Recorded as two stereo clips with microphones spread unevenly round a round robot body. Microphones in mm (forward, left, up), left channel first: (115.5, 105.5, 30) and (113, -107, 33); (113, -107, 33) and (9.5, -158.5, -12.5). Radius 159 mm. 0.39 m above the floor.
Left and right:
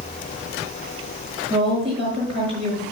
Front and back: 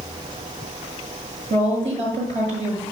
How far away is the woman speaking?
About 6 m.